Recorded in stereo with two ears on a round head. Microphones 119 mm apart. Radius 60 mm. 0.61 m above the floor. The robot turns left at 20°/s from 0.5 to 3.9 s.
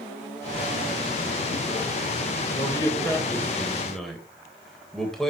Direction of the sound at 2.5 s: 25° left (ahead or behind).